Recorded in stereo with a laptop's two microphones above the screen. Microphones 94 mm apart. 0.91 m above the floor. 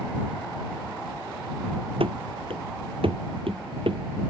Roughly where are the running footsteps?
Right.